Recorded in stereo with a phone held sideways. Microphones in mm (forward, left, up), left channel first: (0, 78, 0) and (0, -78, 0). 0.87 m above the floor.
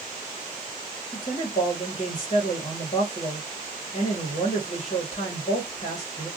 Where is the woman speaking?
55° left (ahead or behind), 1.3 m.